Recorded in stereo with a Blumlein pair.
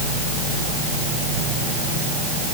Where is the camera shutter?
No camera shutter in this recording.